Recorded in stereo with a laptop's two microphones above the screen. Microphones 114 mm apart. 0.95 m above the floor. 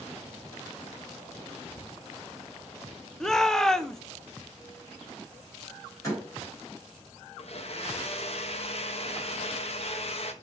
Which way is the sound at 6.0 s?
25° left (ahead or behind).